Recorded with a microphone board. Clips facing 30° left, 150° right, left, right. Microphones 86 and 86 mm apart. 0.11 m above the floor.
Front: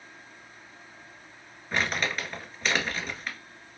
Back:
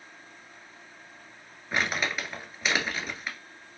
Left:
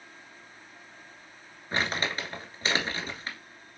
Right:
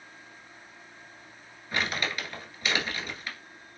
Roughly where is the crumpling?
Behind left.